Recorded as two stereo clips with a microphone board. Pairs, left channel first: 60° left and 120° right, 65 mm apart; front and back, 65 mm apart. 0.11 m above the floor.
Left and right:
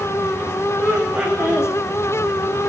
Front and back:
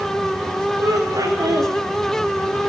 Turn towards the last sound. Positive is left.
turn(degrees=165)